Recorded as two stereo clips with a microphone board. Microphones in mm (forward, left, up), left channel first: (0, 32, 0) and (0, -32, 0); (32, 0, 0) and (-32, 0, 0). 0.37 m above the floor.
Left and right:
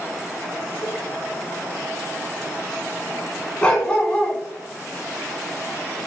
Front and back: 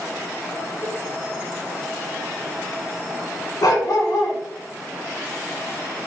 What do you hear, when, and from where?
0.8 s a cowbell: 125° left, 0.5 m
3.6 s a dog barking: 15° left, 1.1 m